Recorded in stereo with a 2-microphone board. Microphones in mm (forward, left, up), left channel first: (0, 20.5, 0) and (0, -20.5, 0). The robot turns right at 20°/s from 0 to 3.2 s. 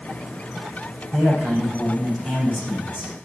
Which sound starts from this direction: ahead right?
A man speaking, at 1.1 s.